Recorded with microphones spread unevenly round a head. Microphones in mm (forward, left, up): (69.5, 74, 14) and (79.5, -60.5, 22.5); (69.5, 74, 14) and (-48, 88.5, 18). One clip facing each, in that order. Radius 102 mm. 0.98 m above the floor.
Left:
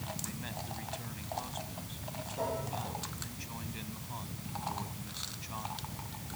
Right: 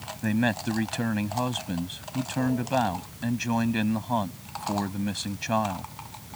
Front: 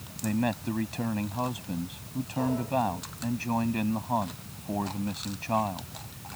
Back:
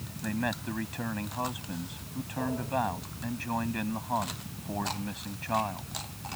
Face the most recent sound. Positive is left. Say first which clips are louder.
# right 17 dB, front 4 dB
turn(degrees=-80)